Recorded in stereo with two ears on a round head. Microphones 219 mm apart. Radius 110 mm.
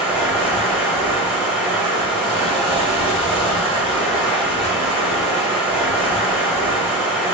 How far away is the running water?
About 1.2 m.